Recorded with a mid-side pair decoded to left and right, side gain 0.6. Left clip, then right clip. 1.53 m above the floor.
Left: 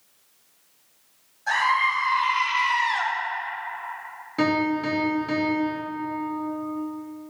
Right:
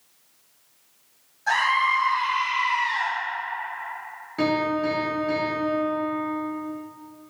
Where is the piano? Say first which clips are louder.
Even; 20° left, 1.4 m.